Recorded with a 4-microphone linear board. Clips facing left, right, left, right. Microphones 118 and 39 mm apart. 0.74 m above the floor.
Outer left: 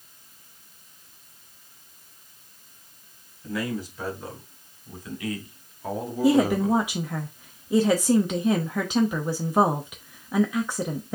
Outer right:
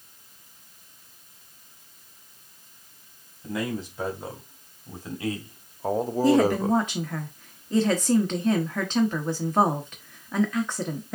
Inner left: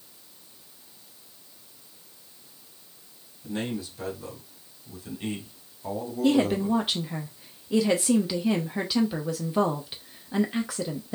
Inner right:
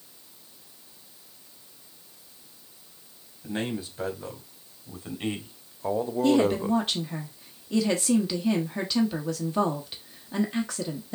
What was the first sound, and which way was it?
A man speaking, 25° right (ahead or behind).